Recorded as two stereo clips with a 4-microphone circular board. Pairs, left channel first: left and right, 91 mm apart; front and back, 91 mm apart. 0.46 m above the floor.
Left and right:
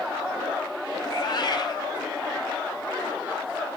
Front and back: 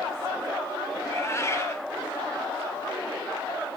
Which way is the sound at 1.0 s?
55° left.